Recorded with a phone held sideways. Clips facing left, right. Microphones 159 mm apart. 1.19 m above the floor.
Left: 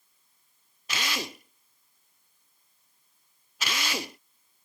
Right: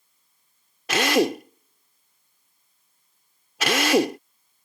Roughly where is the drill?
Right.